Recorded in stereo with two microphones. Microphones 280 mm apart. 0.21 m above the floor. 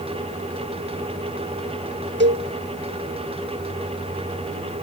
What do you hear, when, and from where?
2.2 s a cowbell: 40° right (ahead or behind), 1.2 m